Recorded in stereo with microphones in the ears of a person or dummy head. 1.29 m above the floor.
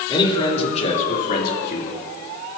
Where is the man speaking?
25° left (ahead or behind), 3.5 m; by 2.0 s 65° left (ahead or behind), 3 m.